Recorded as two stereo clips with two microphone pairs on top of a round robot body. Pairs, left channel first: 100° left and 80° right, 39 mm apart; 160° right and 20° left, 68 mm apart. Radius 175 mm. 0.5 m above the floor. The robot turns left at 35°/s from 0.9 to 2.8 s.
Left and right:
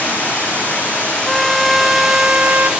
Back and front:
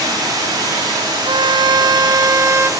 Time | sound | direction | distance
0.0 | running water | 50° left | 8.5 m
1.2 | a violin | 15° left | 0.8 m